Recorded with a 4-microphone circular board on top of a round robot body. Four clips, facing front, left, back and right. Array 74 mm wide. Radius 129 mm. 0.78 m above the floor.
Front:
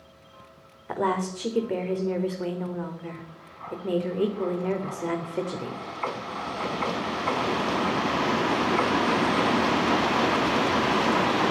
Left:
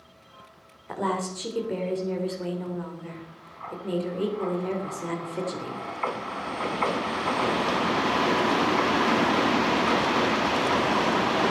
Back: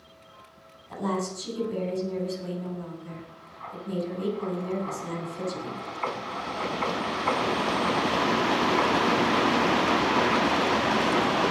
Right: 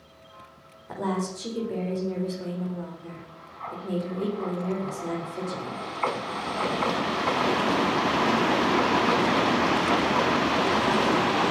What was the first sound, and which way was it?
A woman speaking, 10° left.